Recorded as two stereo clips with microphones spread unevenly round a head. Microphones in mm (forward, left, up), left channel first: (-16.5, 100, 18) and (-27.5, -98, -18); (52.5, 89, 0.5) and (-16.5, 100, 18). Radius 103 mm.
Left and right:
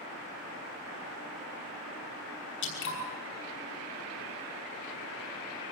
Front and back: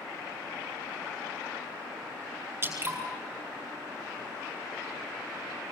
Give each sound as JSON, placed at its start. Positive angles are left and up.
{"t": 2.6, "sound": "dripping", "azimuth_deg": 115, "distance_m": 7.0}